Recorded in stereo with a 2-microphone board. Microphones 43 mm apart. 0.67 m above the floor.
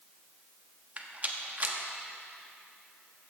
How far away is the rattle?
About 1.0 m.